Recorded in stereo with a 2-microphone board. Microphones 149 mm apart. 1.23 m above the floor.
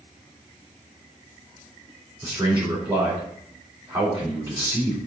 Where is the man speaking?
30° right (ahead or behind), 3.5 m.